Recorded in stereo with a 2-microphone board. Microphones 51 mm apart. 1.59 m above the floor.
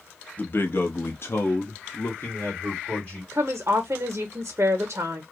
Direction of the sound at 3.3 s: 50° right (ahead or behind).